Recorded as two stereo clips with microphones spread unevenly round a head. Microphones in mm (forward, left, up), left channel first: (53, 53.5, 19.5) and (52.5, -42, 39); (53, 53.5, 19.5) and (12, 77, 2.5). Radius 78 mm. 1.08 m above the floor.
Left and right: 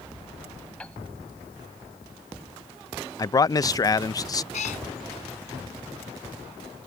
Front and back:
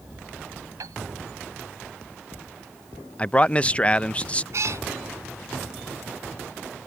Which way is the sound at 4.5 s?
130° left.